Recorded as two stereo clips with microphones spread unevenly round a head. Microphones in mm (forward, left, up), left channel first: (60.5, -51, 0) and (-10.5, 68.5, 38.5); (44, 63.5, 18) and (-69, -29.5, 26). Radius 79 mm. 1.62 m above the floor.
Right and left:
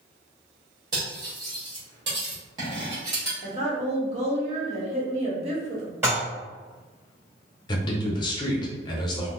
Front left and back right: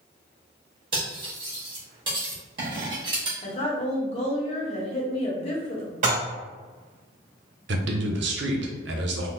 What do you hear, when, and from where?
0.9 s cutlery clinking: 170° left, 1.4 m
3.4 s a woman speaking: 90° left, 1.1 m
6.0 s dishes clattering: 175° right, 1.7 m
7.7 s a man speaking: 125° right, 0.7 m